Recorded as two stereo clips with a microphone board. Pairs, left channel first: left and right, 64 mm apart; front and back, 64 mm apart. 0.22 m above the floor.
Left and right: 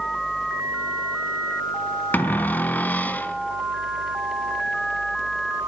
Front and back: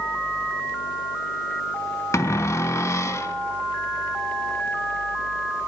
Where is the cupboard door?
30° left, 0.5 m.